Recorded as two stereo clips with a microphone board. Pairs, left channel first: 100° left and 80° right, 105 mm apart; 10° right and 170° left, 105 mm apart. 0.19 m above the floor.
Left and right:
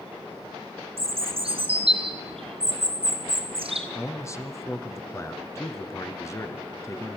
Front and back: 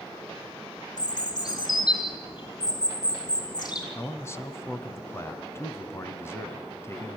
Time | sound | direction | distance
1.0 | a bird | 60° right | 3 m
4.0 | a man speaking | 45° left | 1.7 m